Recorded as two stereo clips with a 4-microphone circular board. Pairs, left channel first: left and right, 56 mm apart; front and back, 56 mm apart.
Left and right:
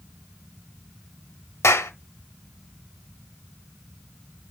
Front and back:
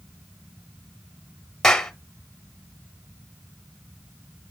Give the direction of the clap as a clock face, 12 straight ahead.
9 o'clock.